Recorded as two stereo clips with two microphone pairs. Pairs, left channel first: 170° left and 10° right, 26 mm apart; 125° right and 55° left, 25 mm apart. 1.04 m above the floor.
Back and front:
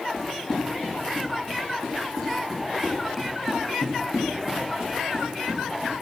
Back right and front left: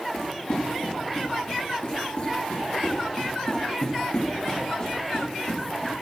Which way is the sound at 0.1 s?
130° right.